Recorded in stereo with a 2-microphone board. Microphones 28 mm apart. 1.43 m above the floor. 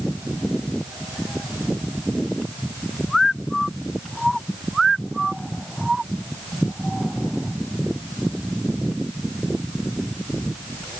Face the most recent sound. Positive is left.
No sound to turn to.